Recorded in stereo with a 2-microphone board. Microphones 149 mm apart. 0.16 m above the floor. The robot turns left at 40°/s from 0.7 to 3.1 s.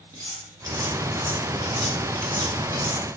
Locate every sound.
0.1 s cutlery clinking: 25° right (ahead or behind), 0.8 m; by 3.0 s 20° left (ahead or behind), 0.8 m